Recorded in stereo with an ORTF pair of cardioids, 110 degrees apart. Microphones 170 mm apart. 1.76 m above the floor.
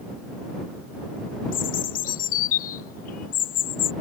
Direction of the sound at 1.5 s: 55° left.